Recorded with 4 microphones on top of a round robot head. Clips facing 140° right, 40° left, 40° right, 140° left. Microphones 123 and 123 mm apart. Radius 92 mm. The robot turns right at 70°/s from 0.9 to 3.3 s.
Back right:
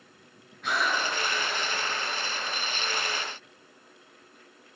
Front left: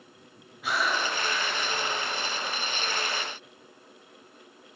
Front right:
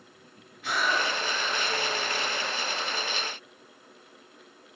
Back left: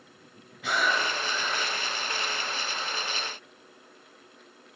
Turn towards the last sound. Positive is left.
turn(degrees=-70)